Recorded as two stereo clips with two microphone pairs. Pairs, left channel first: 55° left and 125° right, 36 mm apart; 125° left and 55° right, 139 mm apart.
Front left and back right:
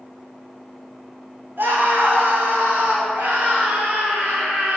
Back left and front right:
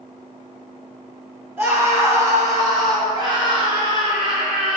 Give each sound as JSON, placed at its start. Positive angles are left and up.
{"t": 1.6, "sound": "a scream", "azimuth_deg": -130, "distance_m": 4.5}